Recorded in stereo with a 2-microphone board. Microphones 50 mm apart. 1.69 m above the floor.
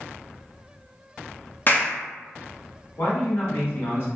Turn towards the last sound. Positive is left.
turn(degrees=60)  # may be behind; listen again after turning